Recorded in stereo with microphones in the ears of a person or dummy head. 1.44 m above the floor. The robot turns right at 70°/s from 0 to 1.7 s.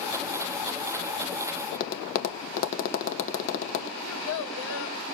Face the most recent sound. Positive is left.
turn(degrees=75)  # may be behind; listen again after turning